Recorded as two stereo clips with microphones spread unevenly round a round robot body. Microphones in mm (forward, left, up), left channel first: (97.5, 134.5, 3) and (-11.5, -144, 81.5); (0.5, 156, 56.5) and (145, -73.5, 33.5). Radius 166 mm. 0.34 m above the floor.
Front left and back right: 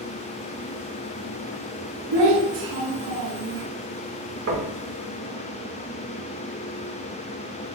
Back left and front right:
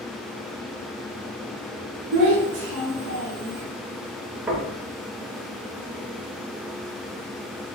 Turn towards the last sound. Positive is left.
turn(degrees=-125)